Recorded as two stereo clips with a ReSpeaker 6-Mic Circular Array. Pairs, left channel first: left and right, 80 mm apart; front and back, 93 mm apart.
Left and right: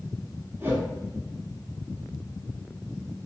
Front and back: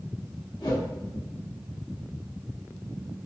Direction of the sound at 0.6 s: 30° right.